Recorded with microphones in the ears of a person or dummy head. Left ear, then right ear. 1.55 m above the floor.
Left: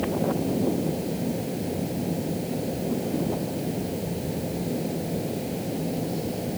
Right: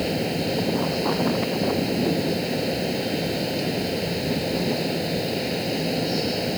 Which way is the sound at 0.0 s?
65° right (ahead or behind).